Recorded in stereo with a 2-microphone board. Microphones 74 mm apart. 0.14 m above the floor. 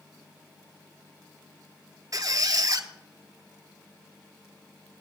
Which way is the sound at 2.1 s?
55° right (ahead or behind).